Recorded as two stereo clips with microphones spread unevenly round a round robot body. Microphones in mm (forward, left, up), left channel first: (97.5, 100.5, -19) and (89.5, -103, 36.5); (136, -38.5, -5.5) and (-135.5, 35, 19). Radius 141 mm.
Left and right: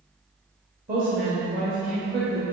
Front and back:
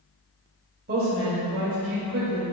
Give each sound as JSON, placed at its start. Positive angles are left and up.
{"t": 0.9, "sound": "a woman speaking", "azimuth_deg": -150, "distance_m": 1.7}